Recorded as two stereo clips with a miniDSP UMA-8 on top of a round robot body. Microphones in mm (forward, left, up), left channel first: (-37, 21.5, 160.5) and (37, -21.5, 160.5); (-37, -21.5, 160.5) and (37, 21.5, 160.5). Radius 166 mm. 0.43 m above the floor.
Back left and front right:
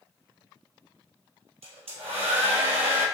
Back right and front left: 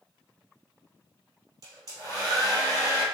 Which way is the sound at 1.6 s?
20° right.